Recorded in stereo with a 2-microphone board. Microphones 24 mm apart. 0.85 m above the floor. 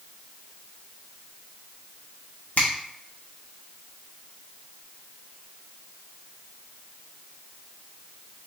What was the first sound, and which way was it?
A finger snap, 60° left (ahead or behind).